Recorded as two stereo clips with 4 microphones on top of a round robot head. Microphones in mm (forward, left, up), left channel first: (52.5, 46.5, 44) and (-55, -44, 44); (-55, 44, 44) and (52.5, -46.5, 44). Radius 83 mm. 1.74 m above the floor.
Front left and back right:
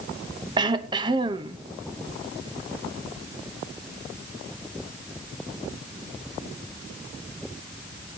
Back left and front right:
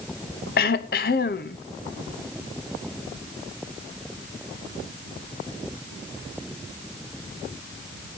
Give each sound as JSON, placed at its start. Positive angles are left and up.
{"t": 0.6, "sound": "throat clearing", "azimuth_deg": 160, "distance_m": 0.7}